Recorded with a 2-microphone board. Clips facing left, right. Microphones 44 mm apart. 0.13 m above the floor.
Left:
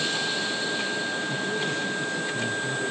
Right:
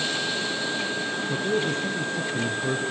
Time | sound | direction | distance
1.3 | a man speaking | 40° right (ahead or behind) | 1.7 m